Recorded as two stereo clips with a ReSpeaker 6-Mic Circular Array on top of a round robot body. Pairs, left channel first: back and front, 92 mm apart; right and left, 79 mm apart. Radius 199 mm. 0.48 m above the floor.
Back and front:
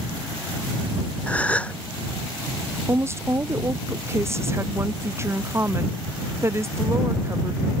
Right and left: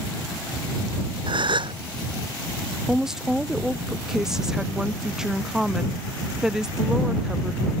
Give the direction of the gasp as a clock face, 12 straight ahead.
9 o'clock.